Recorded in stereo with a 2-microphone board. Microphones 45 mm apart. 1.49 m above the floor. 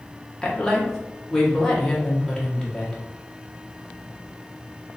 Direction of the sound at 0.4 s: 15° left (ahead or behind).